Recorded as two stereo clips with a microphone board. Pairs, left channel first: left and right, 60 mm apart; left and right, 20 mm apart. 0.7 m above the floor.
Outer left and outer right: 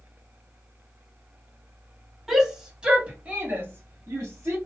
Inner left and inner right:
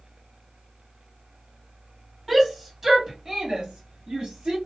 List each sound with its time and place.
2.3 s a shout: 5° right (ahead or behind), 1.7 m; by 4.6 s 45° right (ahead or behind), 1.6 m